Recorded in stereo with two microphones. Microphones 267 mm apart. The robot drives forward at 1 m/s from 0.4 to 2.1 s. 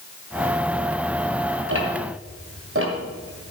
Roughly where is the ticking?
Right.